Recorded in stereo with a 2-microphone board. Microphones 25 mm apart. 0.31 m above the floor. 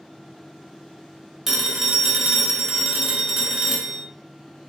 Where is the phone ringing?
10° right (ahead or behind), 0.6 m.